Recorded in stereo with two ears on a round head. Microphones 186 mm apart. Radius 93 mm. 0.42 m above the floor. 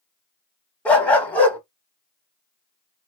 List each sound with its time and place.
0.8 s a dog barking: 5° left (ahead or behind), 1.0 m